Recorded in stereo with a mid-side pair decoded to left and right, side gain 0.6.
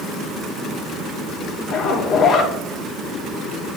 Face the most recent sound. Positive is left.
turn(degrees=50)